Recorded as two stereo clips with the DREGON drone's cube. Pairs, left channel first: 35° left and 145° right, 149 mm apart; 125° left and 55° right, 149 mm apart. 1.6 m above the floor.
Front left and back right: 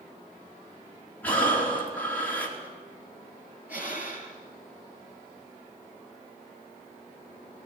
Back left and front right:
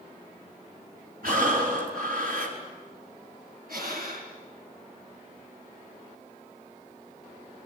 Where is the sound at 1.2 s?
45° right, 5 m.